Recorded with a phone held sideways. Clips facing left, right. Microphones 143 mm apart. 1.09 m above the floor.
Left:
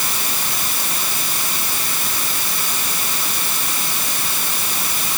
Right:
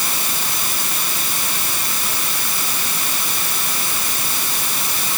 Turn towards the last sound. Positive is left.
No sound to turn to.